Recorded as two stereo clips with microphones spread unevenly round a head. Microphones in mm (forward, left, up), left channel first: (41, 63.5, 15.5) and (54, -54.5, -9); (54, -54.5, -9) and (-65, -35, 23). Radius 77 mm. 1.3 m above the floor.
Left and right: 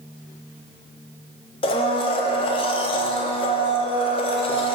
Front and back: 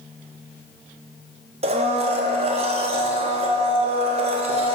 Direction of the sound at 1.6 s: 135° left.